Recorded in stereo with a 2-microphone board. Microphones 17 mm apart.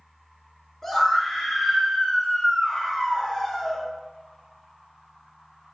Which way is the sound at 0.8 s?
20° left (ahead or behind).